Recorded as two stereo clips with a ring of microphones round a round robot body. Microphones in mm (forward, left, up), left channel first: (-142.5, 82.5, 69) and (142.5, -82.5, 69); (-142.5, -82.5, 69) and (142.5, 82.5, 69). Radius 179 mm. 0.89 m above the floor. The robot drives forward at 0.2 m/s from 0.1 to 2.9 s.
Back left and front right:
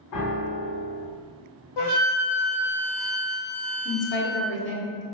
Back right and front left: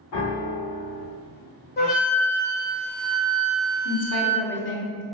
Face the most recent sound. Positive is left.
turn(degrees=180)